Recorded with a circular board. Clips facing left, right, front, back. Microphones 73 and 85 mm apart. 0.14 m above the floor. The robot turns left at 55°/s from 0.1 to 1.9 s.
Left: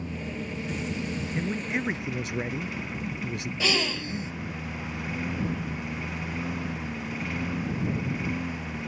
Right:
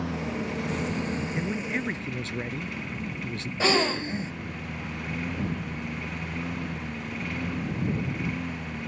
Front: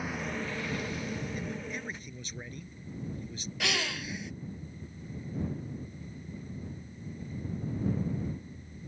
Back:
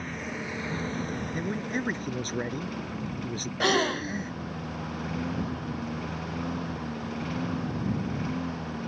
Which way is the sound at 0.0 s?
85° right.